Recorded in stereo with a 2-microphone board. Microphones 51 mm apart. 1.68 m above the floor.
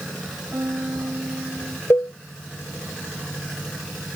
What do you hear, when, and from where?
0.5 s a piano: 55° right (ahead or behind)
1.9 s a cowbell: 65° left (ahead or behind)